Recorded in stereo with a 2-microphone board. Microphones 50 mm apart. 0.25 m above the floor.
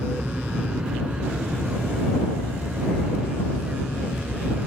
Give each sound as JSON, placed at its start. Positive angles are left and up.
{"t": 0.0, "sound": "an aircraft", "side_deg": -20}